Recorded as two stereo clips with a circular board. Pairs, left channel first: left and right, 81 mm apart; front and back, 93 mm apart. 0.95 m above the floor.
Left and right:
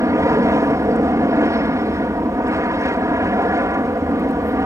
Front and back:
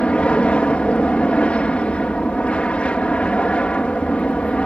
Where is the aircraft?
70° right.